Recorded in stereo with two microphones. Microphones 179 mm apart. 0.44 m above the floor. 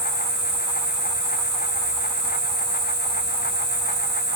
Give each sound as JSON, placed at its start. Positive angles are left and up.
{"t": 0.0, "sound": "an insect", "side_deg": 85, "distance_m": 1.8}